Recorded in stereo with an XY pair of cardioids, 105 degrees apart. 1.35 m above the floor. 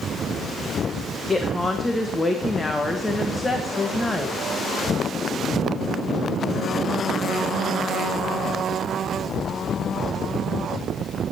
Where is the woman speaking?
20° left, 1.5 m.